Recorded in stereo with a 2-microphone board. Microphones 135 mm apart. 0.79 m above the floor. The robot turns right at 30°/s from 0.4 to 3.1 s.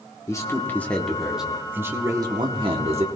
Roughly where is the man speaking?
Behind left.